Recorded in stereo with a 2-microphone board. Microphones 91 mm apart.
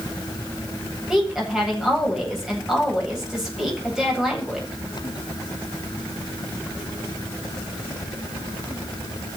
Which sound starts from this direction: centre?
A woman speaking, at 1.1 s.